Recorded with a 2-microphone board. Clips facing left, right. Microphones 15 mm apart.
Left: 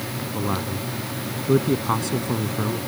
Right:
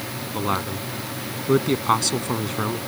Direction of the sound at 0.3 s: 55° right (ahead or behind).